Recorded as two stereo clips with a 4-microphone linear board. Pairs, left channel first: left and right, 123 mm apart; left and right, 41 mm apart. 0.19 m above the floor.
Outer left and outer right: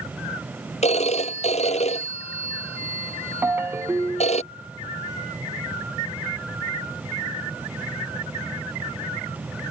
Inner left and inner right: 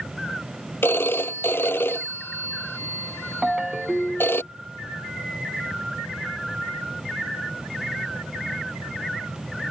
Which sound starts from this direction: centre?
A ringtone, at 3.4 s.